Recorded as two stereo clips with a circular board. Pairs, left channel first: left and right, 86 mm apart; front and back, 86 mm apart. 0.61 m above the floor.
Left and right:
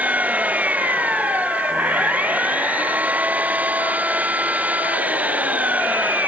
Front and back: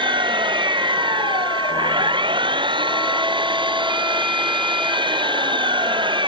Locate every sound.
0.0 s an engine running: 160° right